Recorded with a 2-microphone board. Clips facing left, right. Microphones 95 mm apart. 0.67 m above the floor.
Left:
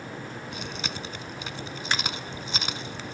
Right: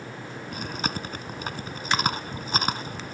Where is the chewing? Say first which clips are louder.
Right 7 dB; 45° right (ahead or behind).